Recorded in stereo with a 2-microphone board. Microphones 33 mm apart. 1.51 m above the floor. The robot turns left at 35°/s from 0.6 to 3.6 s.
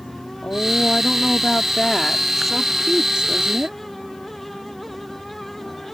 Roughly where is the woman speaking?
Ahead left.